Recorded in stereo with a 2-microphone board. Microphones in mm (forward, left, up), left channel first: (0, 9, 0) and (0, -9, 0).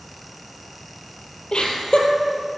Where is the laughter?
65° left (ahead or behind), 3.5 m.